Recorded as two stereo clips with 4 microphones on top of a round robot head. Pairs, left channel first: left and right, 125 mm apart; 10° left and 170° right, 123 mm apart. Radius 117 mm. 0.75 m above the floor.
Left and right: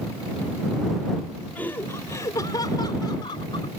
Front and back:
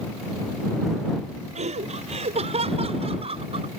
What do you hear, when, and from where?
1.6 s laughter: 170° left; by 3.7 s 150° left